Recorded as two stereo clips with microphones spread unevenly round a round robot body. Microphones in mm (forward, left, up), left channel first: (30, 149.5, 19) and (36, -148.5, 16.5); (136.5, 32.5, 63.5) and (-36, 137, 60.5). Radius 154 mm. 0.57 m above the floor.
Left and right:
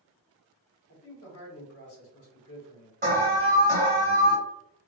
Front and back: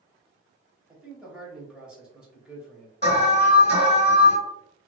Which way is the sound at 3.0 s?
50° right.